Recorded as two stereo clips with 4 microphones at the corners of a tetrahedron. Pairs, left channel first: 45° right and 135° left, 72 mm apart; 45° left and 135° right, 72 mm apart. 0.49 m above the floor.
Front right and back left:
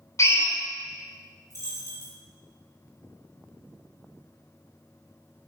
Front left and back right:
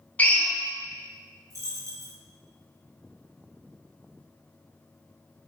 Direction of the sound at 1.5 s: 95° right.